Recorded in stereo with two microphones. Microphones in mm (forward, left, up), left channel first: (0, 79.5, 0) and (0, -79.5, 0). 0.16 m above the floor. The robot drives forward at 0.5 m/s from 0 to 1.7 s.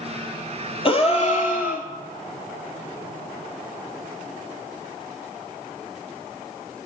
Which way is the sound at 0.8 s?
40° left (ahead or behind).